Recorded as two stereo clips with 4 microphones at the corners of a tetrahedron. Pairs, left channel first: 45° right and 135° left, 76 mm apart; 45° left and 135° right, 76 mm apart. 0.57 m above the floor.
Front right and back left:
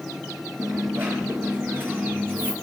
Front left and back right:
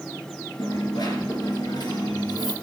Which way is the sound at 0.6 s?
75° left.